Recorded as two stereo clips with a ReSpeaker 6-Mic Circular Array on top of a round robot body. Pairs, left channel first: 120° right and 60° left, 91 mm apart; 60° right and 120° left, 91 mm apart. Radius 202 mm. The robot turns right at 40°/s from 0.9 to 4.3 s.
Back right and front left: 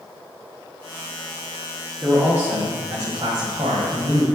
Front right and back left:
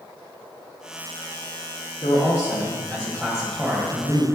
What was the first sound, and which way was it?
A man speaking, 25° right.